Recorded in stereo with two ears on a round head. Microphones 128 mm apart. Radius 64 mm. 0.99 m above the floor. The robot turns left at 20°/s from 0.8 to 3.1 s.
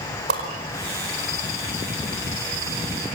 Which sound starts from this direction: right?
A whoosh, at 0.3 s.